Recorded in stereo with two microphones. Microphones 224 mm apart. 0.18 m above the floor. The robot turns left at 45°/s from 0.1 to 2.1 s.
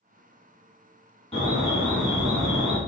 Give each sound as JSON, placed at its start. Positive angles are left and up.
{"t": 1.3, "sound": "an alarm", "azimuth_deg": 35, "distance_m": 1.1}